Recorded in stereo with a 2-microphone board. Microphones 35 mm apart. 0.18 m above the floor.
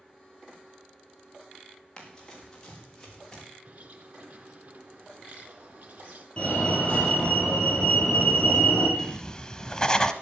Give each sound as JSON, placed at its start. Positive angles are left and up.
{"t": 2.0, "sound": "running footsteps", "side_deg": 15, "distance_m": 6.0}
{"t": 3.6, "sound": "a bird", "side_deg": -55, "distance_m": 1.6}
{"t": 6.4, "sound": "a fire alarm", "side_deg": 25, "distance_m": 7.5}
{"t": 9.0, "sound": "writing", "side_deg": 20, "distance_m": 0.9}